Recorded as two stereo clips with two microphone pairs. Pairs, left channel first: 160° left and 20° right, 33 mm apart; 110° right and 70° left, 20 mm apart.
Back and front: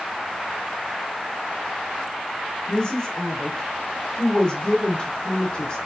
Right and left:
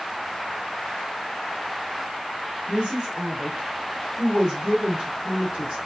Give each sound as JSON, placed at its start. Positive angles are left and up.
{"t": 2.7, "sound": "a woman speaking", "azimuth_deg": 95, "distance_m": 1.5}